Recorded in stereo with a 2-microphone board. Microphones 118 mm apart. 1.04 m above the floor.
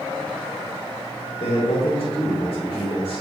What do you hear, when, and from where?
1.4 s a man speaking: 70° left (ahead or behind), 3 m